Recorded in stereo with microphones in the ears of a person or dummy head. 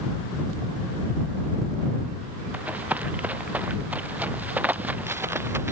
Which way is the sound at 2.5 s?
10° right (ahead or behind).